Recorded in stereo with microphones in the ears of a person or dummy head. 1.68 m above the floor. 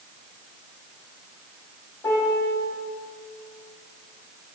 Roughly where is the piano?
Left.